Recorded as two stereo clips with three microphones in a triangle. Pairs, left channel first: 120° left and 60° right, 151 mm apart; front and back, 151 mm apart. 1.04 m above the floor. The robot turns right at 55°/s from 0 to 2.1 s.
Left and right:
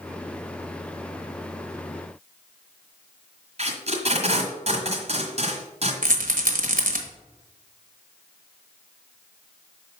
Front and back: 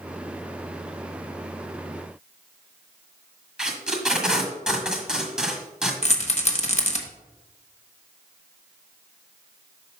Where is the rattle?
40° right, 0.9 m.